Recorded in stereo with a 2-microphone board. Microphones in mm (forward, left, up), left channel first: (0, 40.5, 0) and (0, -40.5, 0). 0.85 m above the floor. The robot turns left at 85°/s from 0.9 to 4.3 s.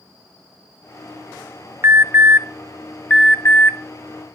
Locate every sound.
1.8 s an alarm: 35° right (ahead or behind), 0.7 m; by 3.8 s 35° left (ahead or behind), 0.7 m